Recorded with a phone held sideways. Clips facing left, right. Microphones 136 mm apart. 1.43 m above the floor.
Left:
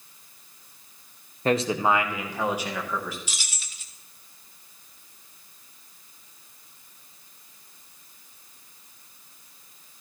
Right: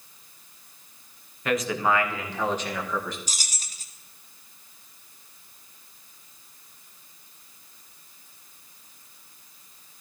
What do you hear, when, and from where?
1.4 s a man speaking: 35° left (ahead or behind), 0.8 m; by 3.2 s 5° left (ahead or behind), 2 m
3.3 s keys jangling: 40° right (ahead or behind), 0.8 m